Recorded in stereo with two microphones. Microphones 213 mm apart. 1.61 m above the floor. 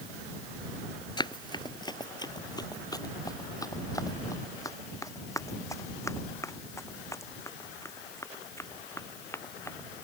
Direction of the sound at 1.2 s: 20° left (ahead or behind).